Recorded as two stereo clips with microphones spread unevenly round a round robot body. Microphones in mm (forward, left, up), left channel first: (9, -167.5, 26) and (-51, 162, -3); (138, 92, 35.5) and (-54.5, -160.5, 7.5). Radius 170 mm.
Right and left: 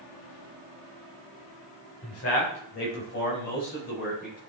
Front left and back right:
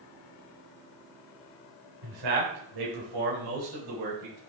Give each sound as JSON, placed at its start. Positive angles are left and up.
{"t": 2.0, "sound": "a man speaking", "azimuth_deg": -130, "distance_m": 3.5}